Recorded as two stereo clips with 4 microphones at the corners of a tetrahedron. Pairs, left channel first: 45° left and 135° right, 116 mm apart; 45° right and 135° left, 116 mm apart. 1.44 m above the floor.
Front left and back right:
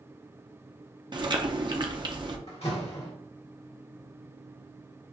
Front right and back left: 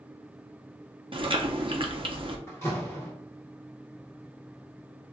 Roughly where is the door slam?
Ahead.